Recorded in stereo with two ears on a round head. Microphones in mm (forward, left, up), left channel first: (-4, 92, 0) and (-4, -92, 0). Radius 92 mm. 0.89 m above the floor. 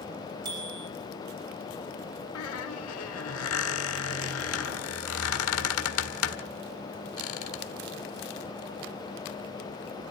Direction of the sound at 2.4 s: 80° left.